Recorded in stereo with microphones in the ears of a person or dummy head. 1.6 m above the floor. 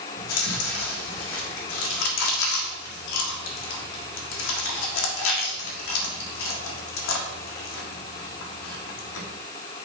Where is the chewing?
70° left (ahead or behind), 1.6 m.